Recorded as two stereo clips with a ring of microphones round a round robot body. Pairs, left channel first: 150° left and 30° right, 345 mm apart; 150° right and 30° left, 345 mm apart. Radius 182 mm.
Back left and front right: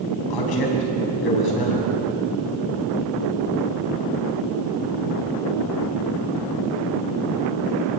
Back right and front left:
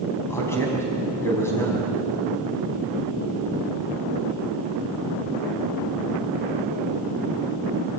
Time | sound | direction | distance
0.3 | a man speaking | 125° left | 5 m